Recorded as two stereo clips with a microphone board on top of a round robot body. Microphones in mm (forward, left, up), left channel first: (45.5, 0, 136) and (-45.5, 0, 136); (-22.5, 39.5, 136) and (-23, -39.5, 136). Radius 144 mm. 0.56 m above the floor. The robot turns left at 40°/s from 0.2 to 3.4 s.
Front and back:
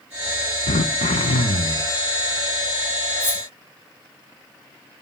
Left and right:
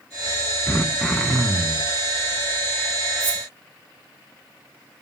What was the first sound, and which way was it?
Throat clearing, 15° left.